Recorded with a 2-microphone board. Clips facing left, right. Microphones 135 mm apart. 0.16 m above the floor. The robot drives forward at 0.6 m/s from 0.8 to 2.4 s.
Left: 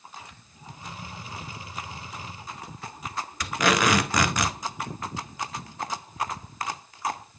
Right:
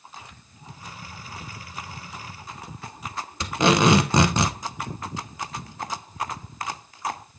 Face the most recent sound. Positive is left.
turn(degrees=-25)  # may be behind; listen again after turning